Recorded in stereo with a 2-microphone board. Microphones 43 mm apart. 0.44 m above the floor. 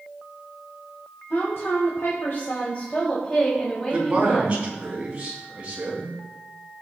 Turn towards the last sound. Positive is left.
turn(degrees=-30)  # may be behind; listen again after turning